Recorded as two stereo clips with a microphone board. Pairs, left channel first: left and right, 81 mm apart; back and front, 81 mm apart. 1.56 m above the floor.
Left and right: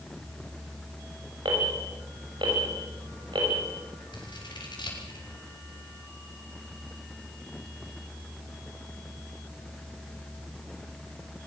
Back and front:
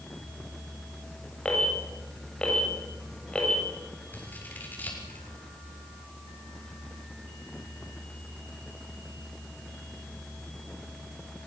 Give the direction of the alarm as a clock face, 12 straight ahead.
3 o'clock.